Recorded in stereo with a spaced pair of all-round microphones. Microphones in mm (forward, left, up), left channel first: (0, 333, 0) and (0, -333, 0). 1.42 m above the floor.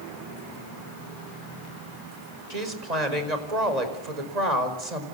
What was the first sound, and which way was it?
A woman speaking, 75° right (ahead or behind).